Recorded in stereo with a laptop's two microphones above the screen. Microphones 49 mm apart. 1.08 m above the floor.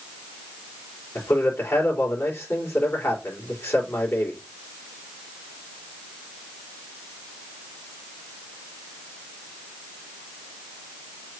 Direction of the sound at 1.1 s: 55° left (ahead or behind).